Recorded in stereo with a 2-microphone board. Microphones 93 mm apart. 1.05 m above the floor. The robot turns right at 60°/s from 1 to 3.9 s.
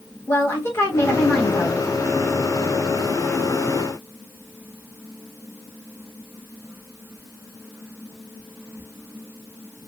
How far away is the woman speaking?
About 1.2 m.